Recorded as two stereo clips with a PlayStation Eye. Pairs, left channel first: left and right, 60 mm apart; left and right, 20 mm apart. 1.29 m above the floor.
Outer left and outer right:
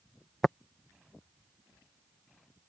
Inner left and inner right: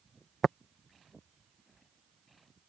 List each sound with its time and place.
0.4 s tapping: 10° left (ahead or behind)